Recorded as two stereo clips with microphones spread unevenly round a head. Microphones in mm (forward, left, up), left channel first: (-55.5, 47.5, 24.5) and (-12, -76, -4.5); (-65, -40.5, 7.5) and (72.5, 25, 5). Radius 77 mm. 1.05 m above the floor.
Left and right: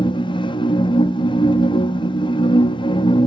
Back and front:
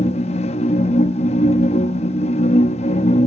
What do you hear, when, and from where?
0.0 s a machine running: 155° left, 0.7 m